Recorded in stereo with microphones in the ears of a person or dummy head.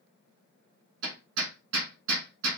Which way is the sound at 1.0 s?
65° right (ahead or behind).